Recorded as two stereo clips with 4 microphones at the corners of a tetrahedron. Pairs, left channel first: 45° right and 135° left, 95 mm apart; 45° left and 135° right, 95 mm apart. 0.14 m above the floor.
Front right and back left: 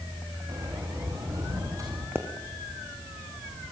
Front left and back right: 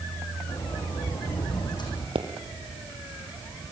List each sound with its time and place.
0.5 s a sliding door: 80° left, 5.5 m
2.1 s a pop: 160° right, 2.5 m